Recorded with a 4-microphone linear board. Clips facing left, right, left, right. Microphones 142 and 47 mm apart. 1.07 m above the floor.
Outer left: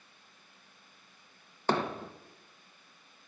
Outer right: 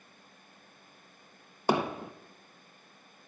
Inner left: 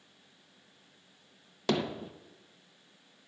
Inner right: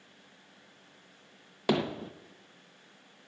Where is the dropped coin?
I don't hear a dropped coin.